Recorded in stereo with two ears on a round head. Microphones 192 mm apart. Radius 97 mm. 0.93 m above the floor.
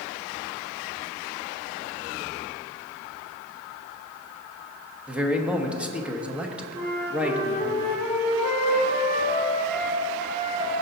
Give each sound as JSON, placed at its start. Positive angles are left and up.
{"t": 5.1, "sound": "a man speaking", "side_deg": -5, "distance_m": 1.0}
{"t": 6.7, "sound": "a flute", "side_deg": -25, "distance_m": 3.0}